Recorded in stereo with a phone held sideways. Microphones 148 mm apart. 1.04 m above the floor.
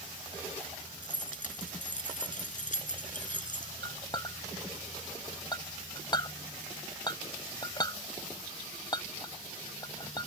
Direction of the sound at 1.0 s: 60° left (ahead or behind).